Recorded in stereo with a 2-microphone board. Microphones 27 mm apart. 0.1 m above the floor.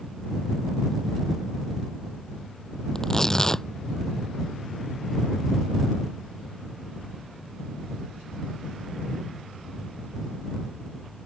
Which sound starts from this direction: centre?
Tearing paper, at 3.0 s.